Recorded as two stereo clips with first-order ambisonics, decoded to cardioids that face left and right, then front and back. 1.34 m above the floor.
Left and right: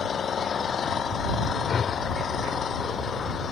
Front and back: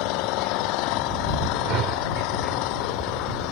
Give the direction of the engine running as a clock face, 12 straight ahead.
11 o'clock.